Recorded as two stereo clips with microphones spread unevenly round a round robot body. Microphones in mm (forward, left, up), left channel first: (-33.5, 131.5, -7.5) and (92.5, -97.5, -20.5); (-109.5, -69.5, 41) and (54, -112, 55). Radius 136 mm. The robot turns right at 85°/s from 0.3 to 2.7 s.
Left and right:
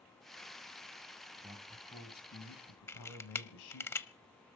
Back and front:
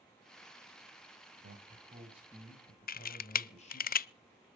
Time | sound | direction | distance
1.4 | a man speaking | 10° left | 3 m
2.9 | a camera shutter | 160° right | 0.5 m